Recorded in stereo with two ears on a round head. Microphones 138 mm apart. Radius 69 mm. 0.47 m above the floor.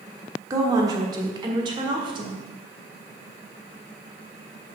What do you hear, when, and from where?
0.5 s a woman speaking: 25° right (ahead or behind), 1.4 m; by 2.5 s 35° right (ahead or behind), 2.5 m